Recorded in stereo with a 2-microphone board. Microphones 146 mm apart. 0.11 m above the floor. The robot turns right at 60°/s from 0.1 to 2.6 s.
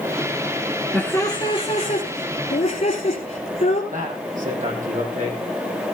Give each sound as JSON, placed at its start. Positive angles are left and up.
{"t": 0.9, "sound": "laughter", "azimuth_deg": 10, "distance_m": 2.5}
{"t": 3.9, "sound": "a man speaking", "side_deg": -60, "distance_m": 6.0}